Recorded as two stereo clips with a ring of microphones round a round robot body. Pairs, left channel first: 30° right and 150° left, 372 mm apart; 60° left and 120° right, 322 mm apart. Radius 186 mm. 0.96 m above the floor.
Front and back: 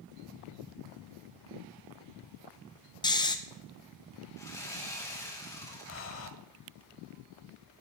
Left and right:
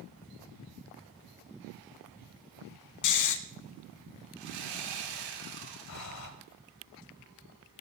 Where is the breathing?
20° left, 1.2 m.